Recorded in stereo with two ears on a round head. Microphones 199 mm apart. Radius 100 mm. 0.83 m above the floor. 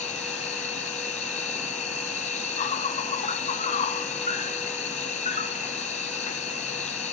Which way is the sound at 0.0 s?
30° left (ahead or behind).